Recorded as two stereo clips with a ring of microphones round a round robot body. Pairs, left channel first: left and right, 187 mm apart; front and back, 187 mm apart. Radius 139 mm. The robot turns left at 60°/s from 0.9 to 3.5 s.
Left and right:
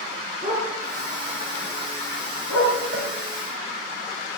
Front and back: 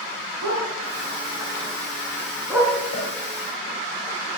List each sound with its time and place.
0.4 s a dog barking: 165° right, 6.5 m; by 2.8 s 85° left, 6.5 m
2.9 s a cowbell: 50° right, 7.5 m; by 3.1 s 65° right, 7.5 m